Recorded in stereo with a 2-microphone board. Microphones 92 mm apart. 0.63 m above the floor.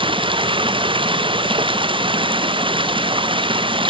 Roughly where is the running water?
Right.